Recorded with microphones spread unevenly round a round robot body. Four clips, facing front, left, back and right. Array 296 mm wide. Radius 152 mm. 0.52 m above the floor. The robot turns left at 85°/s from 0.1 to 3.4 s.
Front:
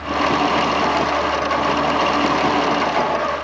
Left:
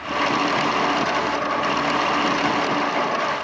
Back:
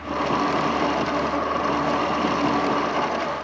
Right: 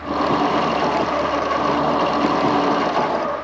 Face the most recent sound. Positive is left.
No sound to turn to.